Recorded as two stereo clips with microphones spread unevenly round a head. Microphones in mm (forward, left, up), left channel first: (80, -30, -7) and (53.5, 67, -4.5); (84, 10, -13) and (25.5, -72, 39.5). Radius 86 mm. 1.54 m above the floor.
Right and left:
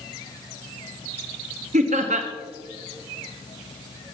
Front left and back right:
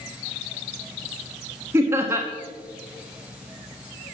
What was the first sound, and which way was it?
Laughter, 155° left.